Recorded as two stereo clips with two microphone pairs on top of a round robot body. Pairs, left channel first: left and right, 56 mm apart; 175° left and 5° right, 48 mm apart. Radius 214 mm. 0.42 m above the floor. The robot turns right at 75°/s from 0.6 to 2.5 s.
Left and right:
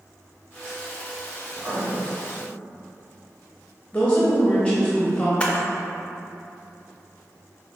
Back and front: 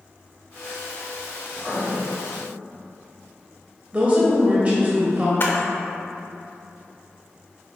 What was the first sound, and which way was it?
Writing, 130° right.